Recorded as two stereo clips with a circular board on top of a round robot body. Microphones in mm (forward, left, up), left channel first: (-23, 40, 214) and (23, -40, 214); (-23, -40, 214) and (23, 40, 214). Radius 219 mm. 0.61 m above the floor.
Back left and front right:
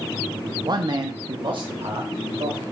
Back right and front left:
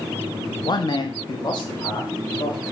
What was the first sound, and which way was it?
A man speaking, 90° right.